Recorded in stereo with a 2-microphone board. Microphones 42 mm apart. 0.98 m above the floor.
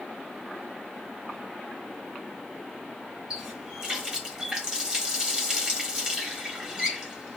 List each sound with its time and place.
3.3 s a running tap: 20° right (ahead or behind), 1.5 m